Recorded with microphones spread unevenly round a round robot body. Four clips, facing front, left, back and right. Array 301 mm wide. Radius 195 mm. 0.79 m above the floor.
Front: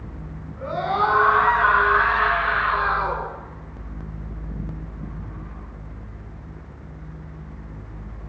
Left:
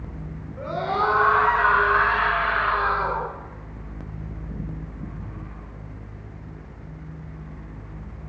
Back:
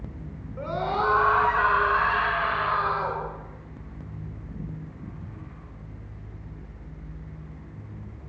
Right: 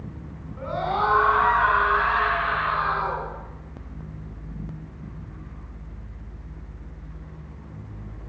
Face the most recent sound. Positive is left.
turn(degrees=170)